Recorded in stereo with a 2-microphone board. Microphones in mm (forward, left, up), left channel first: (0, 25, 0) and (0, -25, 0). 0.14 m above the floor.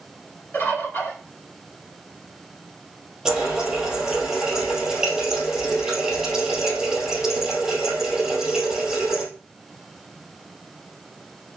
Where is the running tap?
10° right (ahead or behind), 3 m.